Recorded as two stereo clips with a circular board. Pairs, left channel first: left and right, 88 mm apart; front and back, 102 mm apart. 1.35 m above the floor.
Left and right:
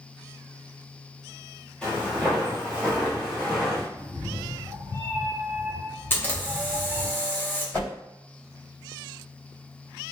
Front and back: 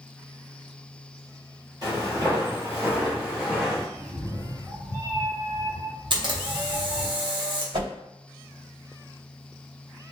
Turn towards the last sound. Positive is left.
turn(degrees=160)